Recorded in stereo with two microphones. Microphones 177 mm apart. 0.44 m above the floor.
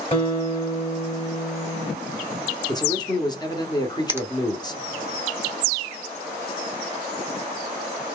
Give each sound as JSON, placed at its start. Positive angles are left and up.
{"t": 0.1, "sound": "a guitar", "side_deg": 35, "distance_m": 2.0}
{"t": 2.7, "sound": "a man speaking", "side_deg": 25, "distance_m": 0.9}
{"t": 4.1, "sound": "a finger snap", "side_deg": -15, "distance_m": 0.8}